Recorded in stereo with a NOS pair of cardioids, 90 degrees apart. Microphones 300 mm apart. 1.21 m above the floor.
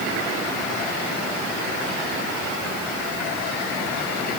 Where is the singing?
No singing in this recording.